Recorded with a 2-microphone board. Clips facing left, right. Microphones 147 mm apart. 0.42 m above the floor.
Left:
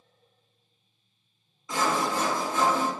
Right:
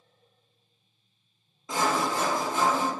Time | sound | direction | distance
1.7 | sawing | 30° right (ahead or behind) | 0.7 m